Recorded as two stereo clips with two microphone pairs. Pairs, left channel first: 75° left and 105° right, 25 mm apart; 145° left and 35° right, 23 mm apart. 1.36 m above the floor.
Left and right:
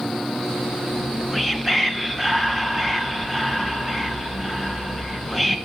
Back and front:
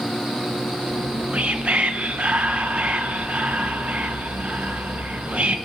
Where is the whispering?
20° right, 0.9 m.